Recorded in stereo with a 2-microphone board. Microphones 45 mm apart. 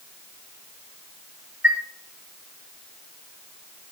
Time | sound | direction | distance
1.6 | a chime | 40° right (ahead or behind) | 3.5 m